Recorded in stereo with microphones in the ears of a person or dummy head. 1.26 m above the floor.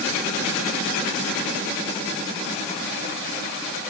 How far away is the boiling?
I don't hear boiling.